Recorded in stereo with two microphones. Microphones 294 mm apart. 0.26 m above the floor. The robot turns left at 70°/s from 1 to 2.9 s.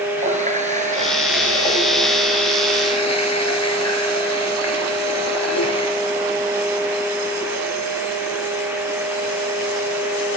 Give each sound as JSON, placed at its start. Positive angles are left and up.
{"t": 0.2, "sound": "a running tap", "azimuth_deg": -155, "distance_m": 2.5}